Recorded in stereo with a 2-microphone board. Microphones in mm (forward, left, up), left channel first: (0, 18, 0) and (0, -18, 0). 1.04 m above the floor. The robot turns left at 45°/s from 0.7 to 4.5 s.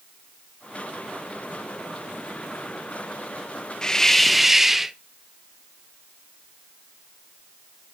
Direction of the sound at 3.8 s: 20° left.